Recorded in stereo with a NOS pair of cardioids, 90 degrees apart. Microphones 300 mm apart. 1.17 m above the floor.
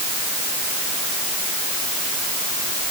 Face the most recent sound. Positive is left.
No sound to turn to.